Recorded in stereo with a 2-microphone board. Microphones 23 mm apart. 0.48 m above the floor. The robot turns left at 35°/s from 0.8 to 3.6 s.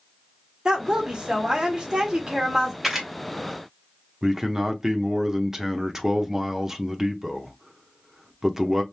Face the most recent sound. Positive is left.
turn(degrees=-20)  # may be behind; listen again after turning